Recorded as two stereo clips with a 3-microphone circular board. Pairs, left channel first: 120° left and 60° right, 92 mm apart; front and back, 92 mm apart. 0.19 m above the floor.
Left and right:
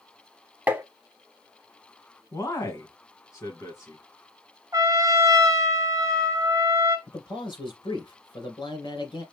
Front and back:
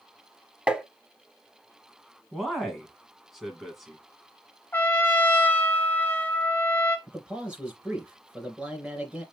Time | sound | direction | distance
0.7 | tapping | 110° right | 0.8 m
2.3 | a man speaking | 90° left | 1.4 m
4.7 | a trumpet | 50° right | 1.1 m
7.1 | a man speaking | 100° left | 3 m